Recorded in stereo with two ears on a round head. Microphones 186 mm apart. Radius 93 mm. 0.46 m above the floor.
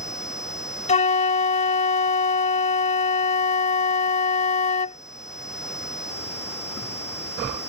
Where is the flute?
35° left (ahead or behind).